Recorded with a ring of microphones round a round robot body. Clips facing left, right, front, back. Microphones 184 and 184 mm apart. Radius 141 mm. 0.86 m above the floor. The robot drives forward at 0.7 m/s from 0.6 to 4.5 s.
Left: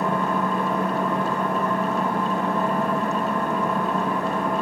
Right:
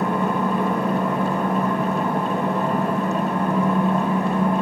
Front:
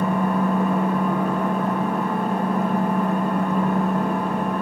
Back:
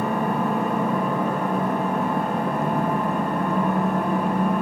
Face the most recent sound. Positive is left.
turn(degrees=-160)